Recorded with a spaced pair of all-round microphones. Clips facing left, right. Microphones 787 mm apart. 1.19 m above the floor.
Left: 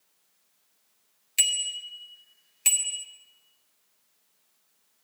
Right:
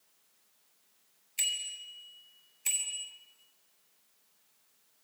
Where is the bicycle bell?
85° left, 2 m.